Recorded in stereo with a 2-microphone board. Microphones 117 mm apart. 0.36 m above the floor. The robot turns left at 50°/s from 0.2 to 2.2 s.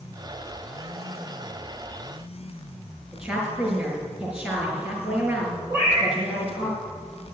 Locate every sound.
3.1 s a woman speaking: 10° right (ahead or behind), 5 m
5.7 s a cat meowing: 20° right (ahead or behind), 3.5 m